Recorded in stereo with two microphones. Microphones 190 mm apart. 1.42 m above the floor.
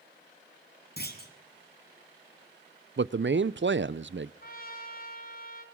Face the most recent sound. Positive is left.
turn(degrees=50)  # may be behind; listen again after turning